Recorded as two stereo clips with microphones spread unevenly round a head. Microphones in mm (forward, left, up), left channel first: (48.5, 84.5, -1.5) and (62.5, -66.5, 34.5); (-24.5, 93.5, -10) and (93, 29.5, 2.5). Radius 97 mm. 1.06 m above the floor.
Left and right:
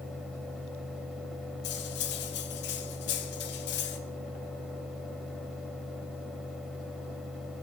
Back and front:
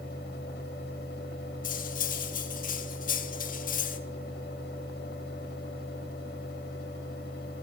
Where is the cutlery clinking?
130° left, 1.2 m.